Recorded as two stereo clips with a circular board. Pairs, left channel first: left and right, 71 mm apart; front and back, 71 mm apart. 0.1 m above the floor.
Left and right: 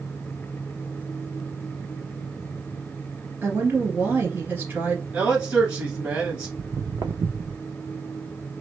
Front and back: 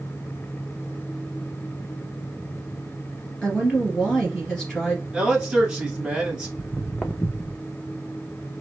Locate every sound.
3.4 s a woman speaking: 75° right, 1.6 m
5.1 s a man speaking: 125° right, 1.3 m
6.6 s footsteps: 115° right, 0.8 m; by 7.6 s 20° right, 0.8 m